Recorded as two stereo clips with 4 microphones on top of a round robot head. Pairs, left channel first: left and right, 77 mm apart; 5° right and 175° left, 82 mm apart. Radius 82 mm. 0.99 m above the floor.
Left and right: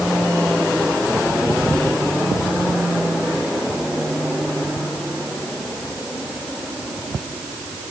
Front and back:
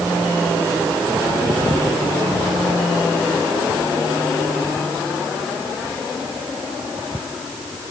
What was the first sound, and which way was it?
Only background noise.